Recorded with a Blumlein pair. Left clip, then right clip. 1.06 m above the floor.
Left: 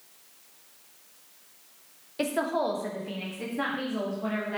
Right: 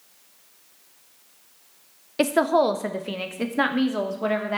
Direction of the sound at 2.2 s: 25° right.